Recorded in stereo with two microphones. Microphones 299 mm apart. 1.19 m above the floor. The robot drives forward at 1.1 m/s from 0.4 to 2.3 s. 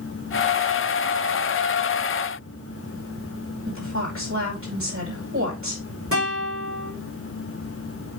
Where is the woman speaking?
45° right (ahead or behind), 5 m.